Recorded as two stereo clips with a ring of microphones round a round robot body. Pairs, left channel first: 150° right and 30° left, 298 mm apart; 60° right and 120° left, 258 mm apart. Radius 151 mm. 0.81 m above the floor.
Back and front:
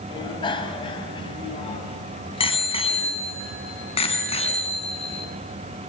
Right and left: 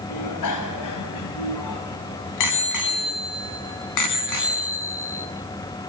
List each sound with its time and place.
0.1 s a bicycle bell: 75° right, 3.5 m; by 5.2 s 80° right, 6 m